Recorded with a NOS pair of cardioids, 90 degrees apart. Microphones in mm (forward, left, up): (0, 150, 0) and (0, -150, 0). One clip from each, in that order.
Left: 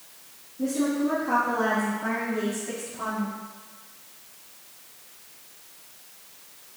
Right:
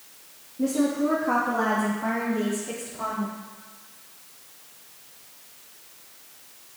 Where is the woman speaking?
35° right, 1.9 m; by 3.4 s straight ahead, 3.5 m.